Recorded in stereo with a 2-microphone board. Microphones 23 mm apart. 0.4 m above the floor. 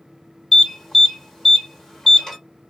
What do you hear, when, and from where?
0.5 s an alarm: 15° left (ahead or behind), 1.4 m